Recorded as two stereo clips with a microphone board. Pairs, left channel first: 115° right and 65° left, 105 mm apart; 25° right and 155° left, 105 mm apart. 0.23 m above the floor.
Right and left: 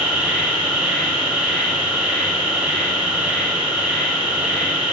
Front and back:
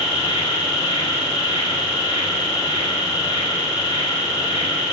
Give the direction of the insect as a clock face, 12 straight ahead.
12 o'clock.